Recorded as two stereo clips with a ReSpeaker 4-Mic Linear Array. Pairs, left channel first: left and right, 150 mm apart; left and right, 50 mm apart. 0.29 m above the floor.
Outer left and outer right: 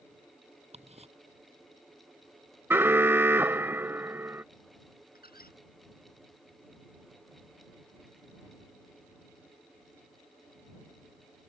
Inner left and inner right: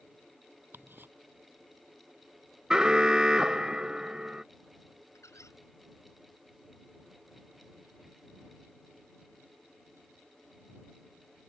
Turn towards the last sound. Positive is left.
turn(degrees=85)